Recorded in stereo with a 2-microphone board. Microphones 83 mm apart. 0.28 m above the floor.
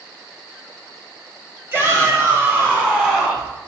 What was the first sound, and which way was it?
A shout, 30° right (ahead or behind).